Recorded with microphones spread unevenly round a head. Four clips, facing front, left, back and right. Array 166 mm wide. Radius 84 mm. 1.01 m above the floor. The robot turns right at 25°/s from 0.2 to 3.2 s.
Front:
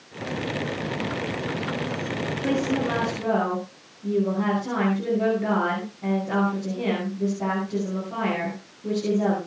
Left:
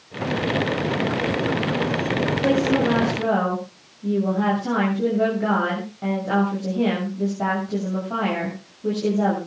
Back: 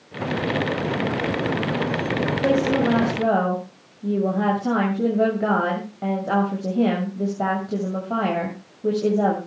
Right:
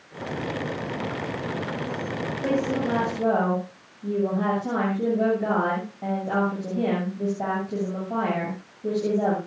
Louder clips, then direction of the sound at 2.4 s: Left 4 dB, back 5 dB; 160° left.